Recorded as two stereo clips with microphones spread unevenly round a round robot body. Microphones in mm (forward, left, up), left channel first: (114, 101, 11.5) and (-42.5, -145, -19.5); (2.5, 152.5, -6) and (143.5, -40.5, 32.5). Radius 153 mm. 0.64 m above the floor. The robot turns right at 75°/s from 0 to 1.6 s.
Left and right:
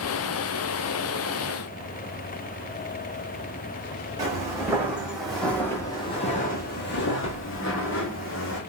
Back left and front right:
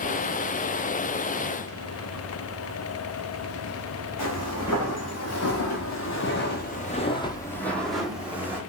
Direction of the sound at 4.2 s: 155° left.